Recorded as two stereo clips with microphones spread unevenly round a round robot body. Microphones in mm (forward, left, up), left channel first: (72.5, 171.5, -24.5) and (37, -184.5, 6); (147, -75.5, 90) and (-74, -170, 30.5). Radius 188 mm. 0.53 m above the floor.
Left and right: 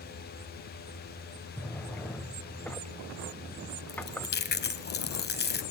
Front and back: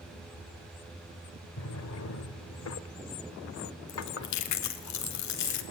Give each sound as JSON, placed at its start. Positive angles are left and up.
{"t": 1.6, "sound": "a drawer", "azimuth_deg": 0, "distance_m": 1.6}
{"t": 3.9, "sound": "chewing", "azimuth_deg": 20, "distance_m": 2.0}